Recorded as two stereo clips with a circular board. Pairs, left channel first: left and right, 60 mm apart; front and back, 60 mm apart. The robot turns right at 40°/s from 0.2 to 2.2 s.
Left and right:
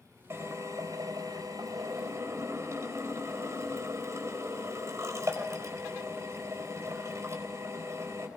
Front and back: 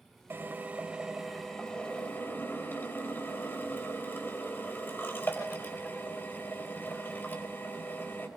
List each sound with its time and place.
0.3 s a drill: 130° right, 4 m; by 8.3 s 55° right, 4 m